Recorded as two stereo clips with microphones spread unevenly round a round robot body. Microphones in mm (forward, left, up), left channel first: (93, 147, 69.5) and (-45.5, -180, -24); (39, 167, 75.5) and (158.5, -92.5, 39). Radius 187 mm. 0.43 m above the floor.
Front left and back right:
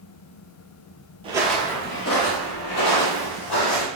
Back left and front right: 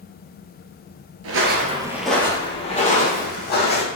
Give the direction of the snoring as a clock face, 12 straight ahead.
No snoring in this recording.